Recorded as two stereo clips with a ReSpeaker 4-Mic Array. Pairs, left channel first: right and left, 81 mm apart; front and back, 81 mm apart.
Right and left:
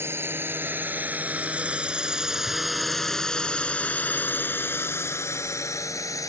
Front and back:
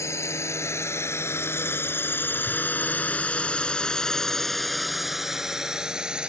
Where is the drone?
40° left; by 6.3 s 105° right.